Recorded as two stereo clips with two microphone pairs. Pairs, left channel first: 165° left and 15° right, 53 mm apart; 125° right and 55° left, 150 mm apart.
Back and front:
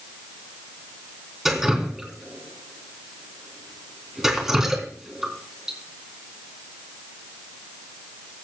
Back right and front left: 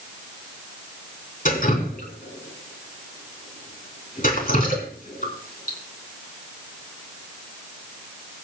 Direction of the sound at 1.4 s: 100° right.